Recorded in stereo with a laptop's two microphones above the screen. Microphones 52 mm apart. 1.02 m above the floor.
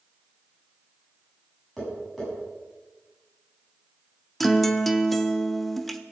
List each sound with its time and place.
1.8 s tapping: centre (ahead or behind), 8 m
4.4 s a guitar: centre (ahead or behind), 0.7 m